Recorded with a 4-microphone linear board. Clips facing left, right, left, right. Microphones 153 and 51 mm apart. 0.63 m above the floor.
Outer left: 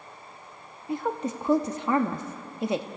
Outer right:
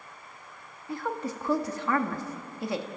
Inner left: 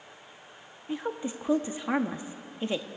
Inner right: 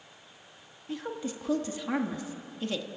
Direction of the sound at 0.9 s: 20° left (ahead or behind).